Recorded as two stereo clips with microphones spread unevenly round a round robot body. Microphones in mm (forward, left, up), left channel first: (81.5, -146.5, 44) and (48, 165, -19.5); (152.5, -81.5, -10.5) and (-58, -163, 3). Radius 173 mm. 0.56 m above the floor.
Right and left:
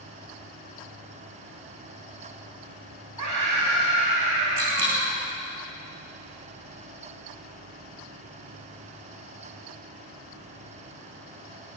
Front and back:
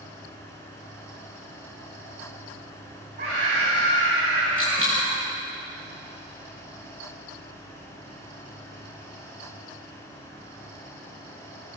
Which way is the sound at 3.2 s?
135° left.